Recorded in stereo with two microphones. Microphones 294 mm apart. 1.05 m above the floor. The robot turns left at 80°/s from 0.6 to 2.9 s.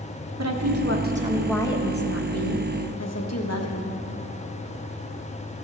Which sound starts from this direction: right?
A woman speaking, at 0.4 s.